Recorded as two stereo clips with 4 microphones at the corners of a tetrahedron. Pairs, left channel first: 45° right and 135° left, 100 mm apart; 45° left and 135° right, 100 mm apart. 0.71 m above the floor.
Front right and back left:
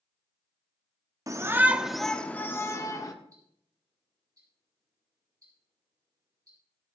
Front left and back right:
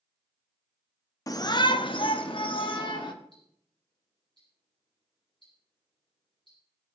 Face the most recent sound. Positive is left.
turn(degrees=80)